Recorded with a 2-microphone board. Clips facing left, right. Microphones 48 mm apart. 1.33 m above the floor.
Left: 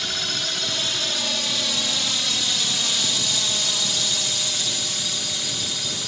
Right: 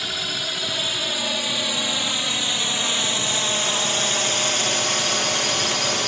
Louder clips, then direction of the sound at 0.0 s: Right 1 dB; 10° right (ahead or behind).